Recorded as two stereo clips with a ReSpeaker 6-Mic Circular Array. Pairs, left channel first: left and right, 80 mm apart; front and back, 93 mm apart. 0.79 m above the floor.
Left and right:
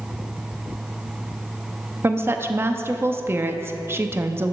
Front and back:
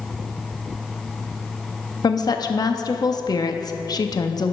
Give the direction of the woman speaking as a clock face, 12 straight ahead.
1 o'clock.